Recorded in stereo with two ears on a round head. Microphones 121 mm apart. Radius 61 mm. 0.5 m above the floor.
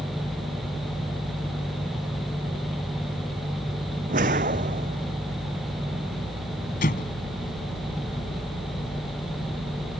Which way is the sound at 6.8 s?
70° left (ahead or behind).